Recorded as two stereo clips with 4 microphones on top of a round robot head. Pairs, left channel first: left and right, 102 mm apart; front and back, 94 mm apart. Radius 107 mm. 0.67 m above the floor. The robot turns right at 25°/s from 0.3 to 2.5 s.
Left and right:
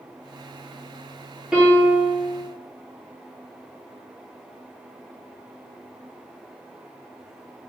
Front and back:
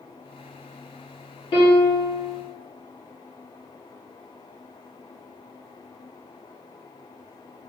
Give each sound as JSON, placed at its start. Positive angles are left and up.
{"t": 1.5, "sound": "a piano", "azimuth_deg": -10, "distance_m": 1.7}